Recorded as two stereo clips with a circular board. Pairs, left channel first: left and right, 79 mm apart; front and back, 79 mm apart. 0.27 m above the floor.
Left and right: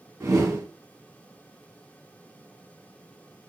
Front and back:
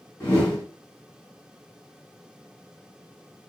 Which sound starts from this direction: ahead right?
A whoosh, at 0.2 s.